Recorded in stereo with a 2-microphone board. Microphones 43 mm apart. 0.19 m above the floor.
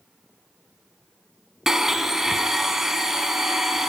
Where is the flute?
No flute in this recording.